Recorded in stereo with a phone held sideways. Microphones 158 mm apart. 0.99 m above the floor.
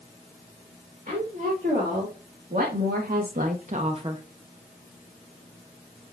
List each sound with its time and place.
1.1 s a woman speaking: 50° right (ahead or behind), 2.5 m; by 4.2 s 20° right (ahead or behind), 0.7 m